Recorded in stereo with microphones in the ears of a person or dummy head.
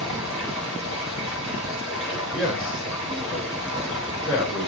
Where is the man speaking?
60° left (ahead or behind), 5 m.